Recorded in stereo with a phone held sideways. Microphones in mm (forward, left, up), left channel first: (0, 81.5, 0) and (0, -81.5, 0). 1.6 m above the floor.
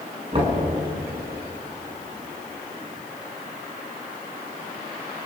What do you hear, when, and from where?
0.3 s knocking: 40° right (ahead or behind), 6.5 m